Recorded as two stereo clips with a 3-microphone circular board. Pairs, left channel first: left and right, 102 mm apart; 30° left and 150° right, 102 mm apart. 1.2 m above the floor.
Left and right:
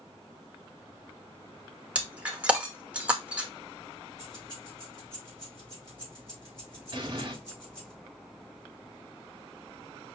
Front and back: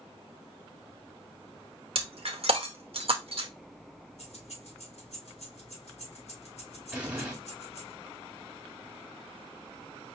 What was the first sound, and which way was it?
Breaking glass, 170° right.